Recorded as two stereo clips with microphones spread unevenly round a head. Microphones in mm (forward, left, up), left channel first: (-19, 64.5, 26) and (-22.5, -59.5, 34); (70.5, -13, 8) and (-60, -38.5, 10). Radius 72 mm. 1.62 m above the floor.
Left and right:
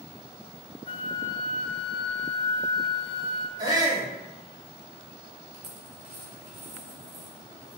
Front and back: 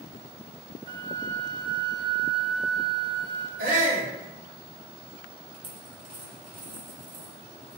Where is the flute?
130° left, 0.9 m.